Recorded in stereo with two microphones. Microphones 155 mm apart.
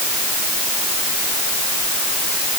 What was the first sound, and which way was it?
Only background noise.